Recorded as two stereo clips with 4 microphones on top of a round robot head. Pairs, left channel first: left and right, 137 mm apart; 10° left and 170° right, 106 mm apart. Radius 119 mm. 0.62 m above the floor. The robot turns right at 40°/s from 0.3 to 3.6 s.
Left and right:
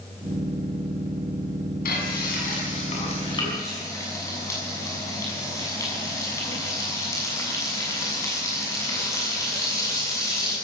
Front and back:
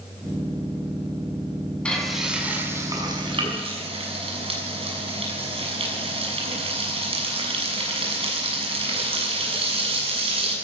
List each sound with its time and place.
1.9 s frying: 90° left, 7 m; by 10.6 s 160° left, 7 m